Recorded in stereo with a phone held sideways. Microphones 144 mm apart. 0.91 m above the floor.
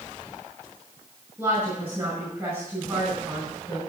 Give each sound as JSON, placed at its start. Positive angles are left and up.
{"t": 1.4, "sound": "a woman speaking", "side_deg": -20, "distance_m": 5.0}